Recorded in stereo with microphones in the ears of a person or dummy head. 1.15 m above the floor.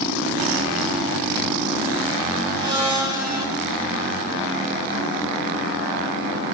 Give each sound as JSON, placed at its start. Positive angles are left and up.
{"t": 2.6, "sound": "a blender", "side_deg": -25, "distance_m": 1.1}